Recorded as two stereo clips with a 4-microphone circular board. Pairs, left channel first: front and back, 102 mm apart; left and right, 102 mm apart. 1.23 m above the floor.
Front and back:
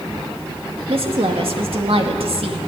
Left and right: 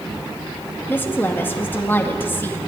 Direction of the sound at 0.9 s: 160° left.